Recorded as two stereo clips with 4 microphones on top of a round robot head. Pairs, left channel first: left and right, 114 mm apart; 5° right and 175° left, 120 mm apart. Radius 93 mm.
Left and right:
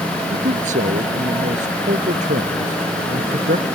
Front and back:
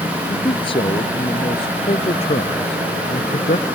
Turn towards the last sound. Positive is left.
turn(degrees=-55)